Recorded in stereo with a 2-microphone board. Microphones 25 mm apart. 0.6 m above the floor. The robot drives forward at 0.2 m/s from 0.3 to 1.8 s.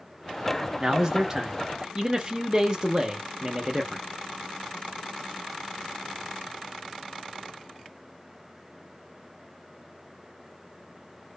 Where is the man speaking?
20° right (ahead or behind), 0.6 m; by 4.0 s 25° right (ahead or behind), 0.6 m.